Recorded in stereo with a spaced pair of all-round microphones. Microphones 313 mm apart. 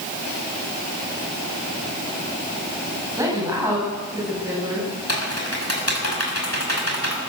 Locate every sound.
3.2 s a woman speaking: 10° right (ahead or behind), 9.5 m
5.1 s typing on a keyboard: 55° left (ahead or behind), 5.5 m